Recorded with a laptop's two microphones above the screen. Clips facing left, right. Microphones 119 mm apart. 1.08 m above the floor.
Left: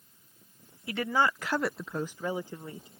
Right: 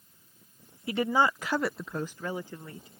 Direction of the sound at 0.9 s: 25° right (ahead or behind).